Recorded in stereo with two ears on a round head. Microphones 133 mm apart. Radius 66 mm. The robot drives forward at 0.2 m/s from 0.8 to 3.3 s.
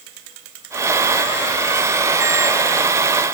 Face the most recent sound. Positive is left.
No sound to turn to.